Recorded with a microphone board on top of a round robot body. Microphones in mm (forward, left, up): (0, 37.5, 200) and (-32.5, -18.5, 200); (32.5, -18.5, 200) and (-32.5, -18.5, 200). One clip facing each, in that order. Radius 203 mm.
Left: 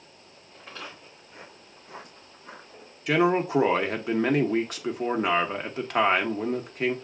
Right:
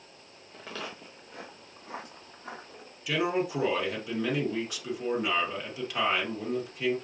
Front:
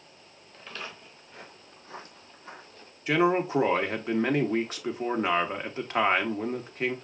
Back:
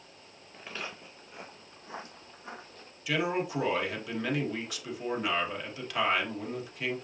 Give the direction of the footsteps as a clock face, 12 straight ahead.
3 o'clock.